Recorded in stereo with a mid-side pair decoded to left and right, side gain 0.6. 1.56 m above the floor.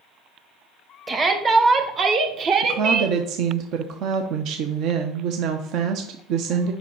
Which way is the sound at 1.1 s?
25° right.